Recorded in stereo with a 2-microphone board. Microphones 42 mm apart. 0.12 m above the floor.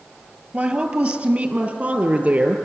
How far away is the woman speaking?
About 2 m.